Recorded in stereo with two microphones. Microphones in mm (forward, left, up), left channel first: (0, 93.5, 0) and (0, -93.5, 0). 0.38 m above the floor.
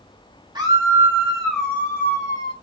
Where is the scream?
25° right (ahead or behind), 1.9 m; by 2.5 s 20° left (ahead or behind), 2.5 m.